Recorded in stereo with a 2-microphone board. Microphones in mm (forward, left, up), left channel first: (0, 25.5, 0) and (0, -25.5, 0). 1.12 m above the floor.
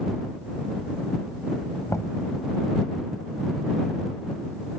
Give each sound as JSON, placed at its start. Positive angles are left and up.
{"t": 1.9, "sound": "knocking", "side_deg": 75}